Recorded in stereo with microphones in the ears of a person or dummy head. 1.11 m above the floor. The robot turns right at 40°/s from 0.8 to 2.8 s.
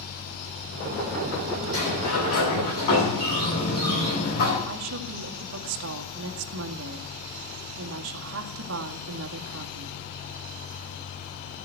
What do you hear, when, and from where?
1.7 s a sliding door: 80° left, 9.5 m; by 4.6 s 125° left, 9.5 m
4.7 s a woman speaking: 70° right (ahead or behind), 1.7 m